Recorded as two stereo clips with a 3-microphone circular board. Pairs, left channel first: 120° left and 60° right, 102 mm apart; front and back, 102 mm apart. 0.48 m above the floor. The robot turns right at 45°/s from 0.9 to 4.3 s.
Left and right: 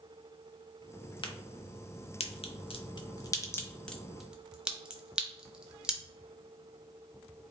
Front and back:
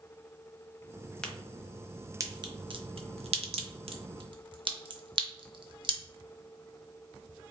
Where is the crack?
80° left, 0.7 m; by 6.0 s 140° right, 0.7 m.